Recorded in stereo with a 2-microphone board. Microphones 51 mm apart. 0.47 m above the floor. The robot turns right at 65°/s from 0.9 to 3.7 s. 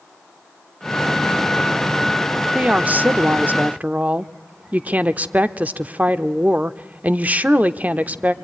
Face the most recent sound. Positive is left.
turn(degrees=-60)